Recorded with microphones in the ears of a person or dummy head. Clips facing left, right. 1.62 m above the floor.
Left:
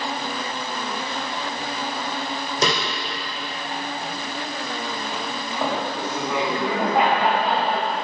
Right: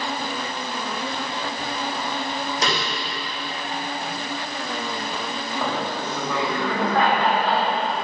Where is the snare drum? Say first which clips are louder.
Left 4 dB; 80° left, 1.6 m.